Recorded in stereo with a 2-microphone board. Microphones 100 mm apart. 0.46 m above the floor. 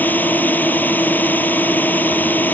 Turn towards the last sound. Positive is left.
turn(degrees=15)  # may be behind; listen again after turning